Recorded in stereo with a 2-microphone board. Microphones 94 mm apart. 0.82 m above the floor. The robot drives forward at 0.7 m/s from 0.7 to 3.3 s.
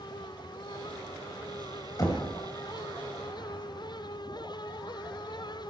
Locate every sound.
2.0 s knocking: 40° left (ahead or behind), 2.5 m; by 2.2 s 45° left (ahead or behind), 2.5 m